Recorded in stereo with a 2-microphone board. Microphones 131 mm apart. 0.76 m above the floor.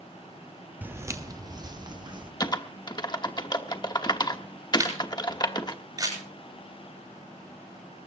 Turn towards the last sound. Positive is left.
turn(degrees=-30)  # may be behind; listen again after turning